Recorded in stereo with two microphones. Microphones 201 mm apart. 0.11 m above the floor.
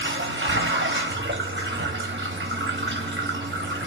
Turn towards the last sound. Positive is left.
turn(degrees=-65)  # may be behind; listen again after turning